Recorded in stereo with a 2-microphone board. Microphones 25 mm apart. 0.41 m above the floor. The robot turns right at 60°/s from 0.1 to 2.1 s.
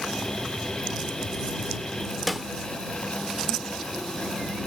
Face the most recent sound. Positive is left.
turn(degrees=0)  # may be behind; listen again after turning